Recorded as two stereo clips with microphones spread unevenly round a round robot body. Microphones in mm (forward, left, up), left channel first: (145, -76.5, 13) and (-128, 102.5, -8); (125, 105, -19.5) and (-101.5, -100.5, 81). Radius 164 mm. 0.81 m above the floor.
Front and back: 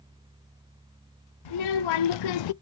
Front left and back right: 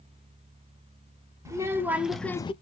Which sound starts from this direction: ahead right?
A child speaking, at 1.4 s.